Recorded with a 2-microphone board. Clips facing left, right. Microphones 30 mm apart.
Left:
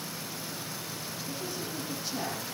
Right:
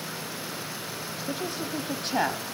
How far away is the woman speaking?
About 1.3 m.